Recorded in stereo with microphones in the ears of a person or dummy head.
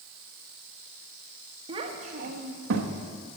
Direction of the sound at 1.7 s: 30° right (ahead or behind).